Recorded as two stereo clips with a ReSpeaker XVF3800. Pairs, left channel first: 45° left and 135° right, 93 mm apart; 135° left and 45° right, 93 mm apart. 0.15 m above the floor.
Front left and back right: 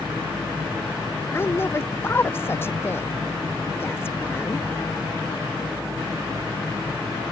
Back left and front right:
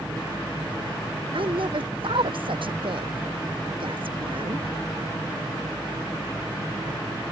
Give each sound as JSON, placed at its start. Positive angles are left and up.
{"t": 1.3, "sound": "a woman speaking", "azimuth_deg": -20}